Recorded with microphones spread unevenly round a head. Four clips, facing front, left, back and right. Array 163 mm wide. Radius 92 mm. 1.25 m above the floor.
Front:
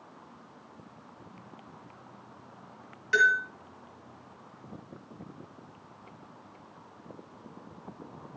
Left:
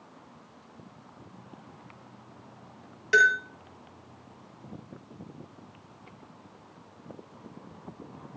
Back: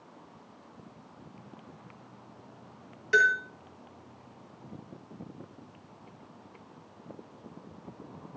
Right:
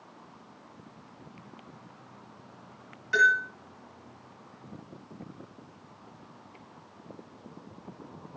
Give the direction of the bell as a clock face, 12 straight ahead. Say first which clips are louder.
Left 1 dB, even; 8 o'clock.